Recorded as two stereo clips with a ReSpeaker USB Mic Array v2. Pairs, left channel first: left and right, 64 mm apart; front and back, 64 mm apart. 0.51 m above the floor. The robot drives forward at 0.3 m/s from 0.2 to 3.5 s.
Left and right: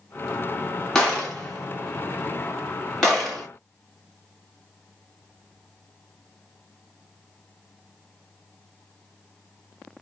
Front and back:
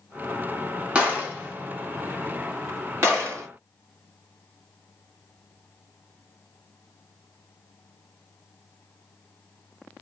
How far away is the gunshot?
About 1.2 m.